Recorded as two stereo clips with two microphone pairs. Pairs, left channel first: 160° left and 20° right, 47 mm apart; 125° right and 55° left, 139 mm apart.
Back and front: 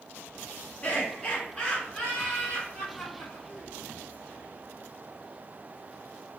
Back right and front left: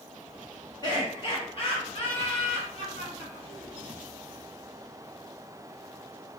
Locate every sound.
0.8 s laughter: 150° right, 1.6 m; by 3.7 s 95° right, 2.5 m